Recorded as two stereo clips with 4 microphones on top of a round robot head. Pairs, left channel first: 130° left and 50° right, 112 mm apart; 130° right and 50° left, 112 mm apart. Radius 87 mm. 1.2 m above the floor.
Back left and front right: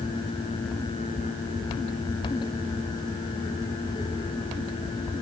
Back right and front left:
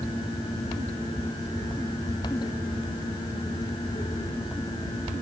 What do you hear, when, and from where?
Only background noise.